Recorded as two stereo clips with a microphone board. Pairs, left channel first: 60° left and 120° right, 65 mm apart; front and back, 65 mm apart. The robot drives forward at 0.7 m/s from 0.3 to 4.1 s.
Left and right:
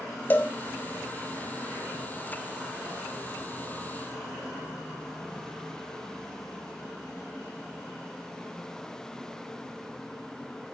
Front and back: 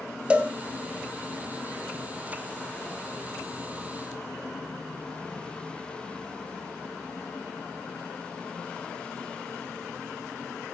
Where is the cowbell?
110° left, 1.3 m; by 0.5 s 120° left, 1.3 m.